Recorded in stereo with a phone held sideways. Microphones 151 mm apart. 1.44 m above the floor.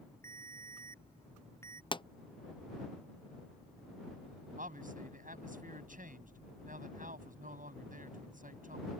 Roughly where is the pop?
Left.